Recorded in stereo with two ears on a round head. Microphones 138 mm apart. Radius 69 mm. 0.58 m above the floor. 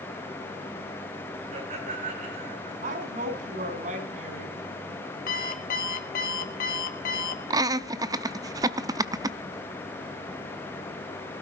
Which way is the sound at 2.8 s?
50° right (ahead or behind).